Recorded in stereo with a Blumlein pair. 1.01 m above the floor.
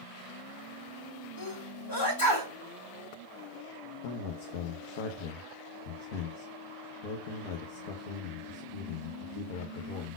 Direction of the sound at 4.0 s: 50° left.